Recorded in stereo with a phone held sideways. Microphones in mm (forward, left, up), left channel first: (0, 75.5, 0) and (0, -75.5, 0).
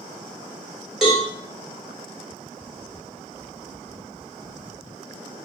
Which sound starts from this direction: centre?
A cowbell, at 1.0 s.